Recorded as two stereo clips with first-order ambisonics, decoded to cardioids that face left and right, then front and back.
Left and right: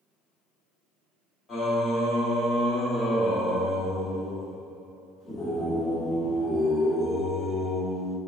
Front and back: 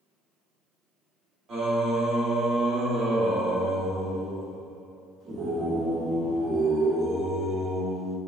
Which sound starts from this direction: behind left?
Singing, at 1.5 s.